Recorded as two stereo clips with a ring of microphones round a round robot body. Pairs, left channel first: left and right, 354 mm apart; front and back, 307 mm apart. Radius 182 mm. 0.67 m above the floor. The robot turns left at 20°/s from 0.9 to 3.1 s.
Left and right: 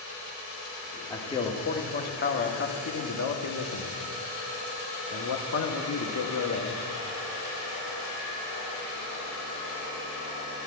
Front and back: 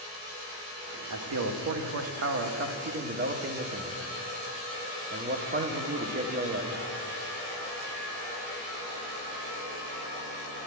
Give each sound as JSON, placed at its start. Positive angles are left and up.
{"t": 1.1, "sound": "a man speaking", "azimuth_deg": 170, "distance_m": 1.4}